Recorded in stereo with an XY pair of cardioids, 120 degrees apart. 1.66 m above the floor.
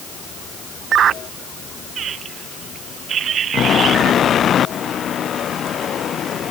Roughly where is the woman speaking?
No woman speaking in this recording.